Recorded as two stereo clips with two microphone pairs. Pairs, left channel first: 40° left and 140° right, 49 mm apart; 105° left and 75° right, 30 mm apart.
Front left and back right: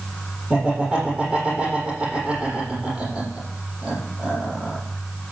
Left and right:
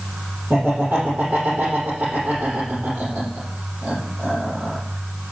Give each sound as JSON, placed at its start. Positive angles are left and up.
{"t": 0.5, "sound": "laughter", "azimuth_deg": -65, "distance_m": 7.5}